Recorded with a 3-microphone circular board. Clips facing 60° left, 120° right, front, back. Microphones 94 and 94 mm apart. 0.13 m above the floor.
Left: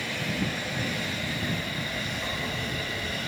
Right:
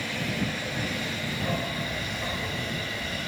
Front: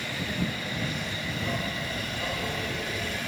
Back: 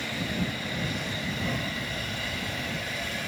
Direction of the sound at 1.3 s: 90° right.